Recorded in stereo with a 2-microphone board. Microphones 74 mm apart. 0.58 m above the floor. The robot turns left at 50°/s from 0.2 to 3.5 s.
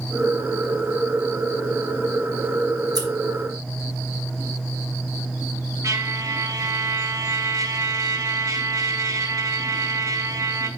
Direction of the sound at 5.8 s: 60° right (ahead or behind).